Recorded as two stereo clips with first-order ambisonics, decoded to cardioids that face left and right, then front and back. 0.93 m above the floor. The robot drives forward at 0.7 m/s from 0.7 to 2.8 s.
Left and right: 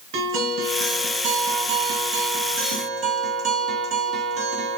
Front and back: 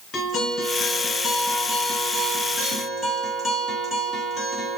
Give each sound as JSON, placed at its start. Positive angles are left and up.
{"t": 0.1, "sound": "a guitar", "azimuth_deg": -65, "distance_m": 2.0}